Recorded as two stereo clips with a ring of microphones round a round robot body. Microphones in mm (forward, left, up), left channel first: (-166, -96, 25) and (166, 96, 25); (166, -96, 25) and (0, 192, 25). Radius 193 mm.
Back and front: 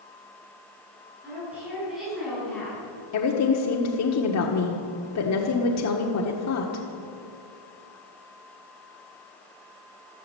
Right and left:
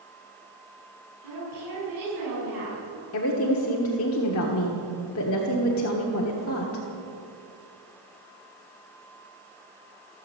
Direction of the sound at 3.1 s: 105° right.